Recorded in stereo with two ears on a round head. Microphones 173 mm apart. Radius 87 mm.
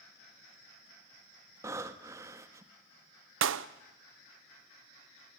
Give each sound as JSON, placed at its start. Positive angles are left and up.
{"t": 1.6, "sound": "breathing", "side_deg": -15, "distance_m": 1.0}
{"t": 3.4, "sound": "a clap", "side_deg": -70, "distance_m": 0.7}